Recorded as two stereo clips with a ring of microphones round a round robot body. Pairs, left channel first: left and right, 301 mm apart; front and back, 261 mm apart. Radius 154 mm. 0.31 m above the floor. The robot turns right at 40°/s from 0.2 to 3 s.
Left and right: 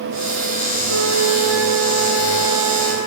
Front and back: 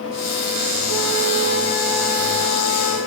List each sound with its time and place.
0.9 s a flute: 125° right, 2.5 m; by 3.0 s 45° right, 2.5 m